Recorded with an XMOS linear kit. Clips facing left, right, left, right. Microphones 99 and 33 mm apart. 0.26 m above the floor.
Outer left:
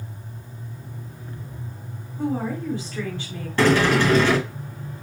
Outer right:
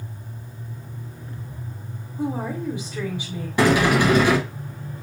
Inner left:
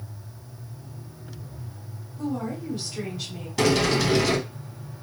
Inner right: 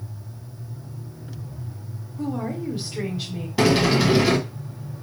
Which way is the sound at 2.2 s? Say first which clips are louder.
Outer left 1 dB, inner right 2 dB; 15° right (ahead or behind).